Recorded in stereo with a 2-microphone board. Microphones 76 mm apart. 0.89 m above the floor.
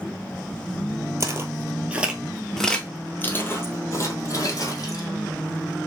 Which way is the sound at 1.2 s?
40° right (ahead or behind).